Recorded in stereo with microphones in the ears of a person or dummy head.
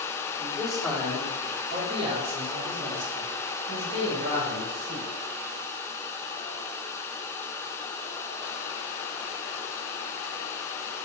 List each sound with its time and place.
0.4 s a man speaking: 10° left (ahead or behind), 3 m; by 5.1 s 70° right (ahead or behind), 4.5 m